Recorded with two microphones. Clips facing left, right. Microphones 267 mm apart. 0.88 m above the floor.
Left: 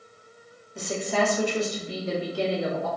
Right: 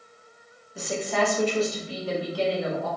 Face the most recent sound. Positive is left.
turn(degrees=35)  # may be behind; listen again after turning